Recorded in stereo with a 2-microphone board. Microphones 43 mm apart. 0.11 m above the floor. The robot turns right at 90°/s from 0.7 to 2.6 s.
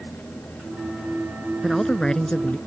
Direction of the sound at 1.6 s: 5° left (ahead or behind).